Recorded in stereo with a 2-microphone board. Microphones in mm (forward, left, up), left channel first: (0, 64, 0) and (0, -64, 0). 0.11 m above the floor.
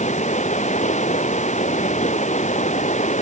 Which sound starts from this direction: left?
Running water, at 0.0 s.